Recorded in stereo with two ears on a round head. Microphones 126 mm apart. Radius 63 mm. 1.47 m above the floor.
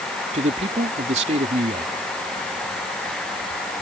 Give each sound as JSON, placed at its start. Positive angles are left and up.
{"t": 0.3, "sound": "a man speaking", "side_deg": -50}